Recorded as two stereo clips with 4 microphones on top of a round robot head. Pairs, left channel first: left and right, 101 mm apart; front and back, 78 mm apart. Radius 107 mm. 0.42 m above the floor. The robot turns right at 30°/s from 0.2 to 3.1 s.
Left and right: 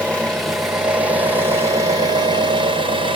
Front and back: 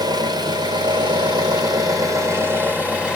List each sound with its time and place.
0.0 s an engine running: 170° left, 1.8 m; by 3.2 s 105° right, 1.8 m